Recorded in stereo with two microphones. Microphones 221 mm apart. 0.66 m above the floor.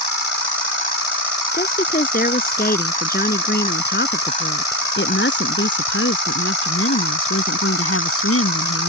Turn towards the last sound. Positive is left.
turn(degrees=80)